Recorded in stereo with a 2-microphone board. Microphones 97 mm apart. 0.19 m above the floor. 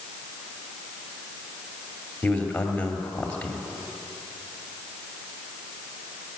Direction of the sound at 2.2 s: 10° left (ahead or behind).